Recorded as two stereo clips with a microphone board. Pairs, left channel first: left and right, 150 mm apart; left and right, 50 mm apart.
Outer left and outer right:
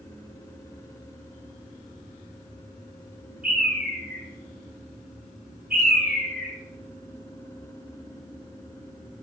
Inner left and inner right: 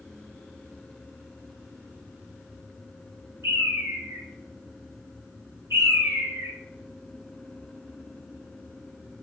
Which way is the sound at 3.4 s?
80° right.